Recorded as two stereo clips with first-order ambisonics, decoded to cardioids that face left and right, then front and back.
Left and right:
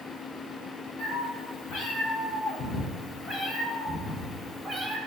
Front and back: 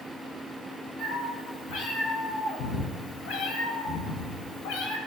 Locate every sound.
1.0 s a cat meowing: 60° left, 4.5 m; by 5.0 s straight ahead, 3.5 m